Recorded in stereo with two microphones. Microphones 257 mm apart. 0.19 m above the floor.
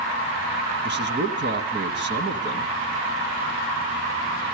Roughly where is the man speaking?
Right.